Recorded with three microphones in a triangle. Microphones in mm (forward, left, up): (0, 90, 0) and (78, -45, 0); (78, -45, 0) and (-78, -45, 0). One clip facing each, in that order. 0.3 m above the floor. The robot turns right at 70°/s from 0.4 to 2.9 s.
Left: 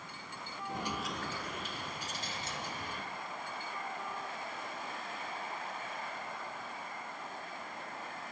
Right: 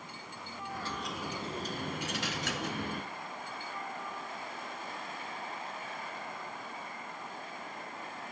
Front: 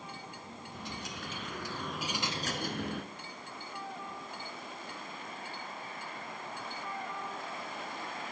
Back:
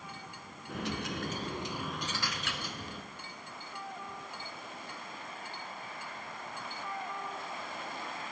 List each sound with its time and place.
0.7 s a dropped coin: 175° right, 1.6 m; by 3.1 s 25° right, 1.6 m